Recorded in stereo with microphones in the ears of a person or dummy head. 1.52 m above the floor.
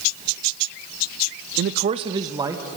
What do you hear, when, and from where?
1.6 s a man speaking: 60° right (ahead or behind), 0.5 m; by 2.6 s 15° right (ahead or behind), 1.8 m